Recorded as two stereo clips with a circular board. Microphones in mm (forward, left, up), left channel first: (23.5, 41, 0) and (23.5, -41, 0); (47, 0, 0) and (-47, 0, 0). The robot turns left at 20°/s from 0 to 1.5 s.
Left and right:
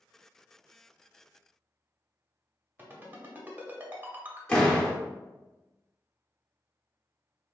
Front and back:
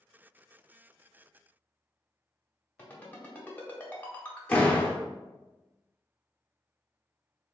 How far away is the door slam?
About 0.8 m.